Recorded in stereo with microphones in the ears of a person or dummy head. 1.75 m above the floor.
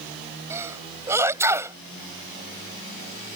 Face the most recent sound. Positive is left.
turn(degrees=-15)  # may be behind; listen again after turning